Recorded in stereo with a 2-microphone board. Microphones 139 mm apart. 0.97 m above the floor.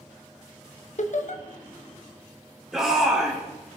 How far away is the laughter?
About 0.8 m.